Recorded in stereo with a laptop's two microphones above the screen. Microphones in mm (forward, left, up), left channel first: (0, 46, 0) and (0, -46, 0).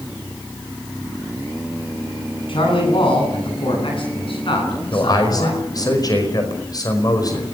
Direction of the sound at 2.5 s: 65° left (ahead or behind).